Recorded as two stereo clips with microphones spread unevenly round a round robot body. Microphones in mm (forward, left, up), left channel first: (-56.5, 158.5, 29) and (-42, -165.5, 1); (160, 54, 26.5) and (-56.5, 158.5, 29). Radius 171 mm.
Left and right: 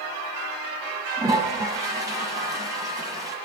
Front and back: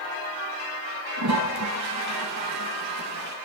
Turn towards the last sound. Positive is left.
turn(degrees=-170)